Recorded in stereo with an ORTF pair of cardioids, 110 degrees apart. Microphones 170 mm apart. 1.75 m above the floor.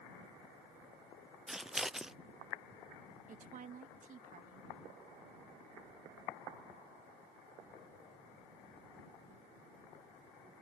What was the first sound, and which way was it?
Scissors, 5° right.